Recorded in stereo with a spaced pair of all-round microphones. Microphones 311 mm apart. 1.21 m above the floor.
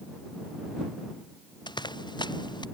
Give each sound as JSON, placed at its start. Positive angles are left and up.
{"t": 1.7, "sound": "running footsteps", "side_deg": 15}